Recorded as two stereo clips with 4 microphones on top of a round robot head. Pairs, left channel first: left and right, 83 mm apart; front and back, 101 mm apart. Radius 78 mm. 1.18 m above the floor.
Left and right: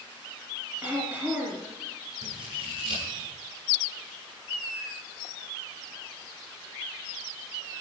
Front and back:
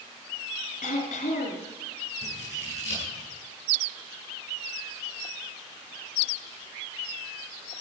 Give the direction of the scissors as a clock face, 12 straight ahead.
1 o'clock.